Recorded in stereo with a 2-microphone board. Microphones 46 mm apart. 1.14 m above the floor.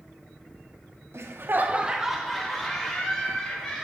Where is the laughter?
70° right (ahead or behind), 0.8 m; by 3.8 s 15° left (ahead or behind), 3 m.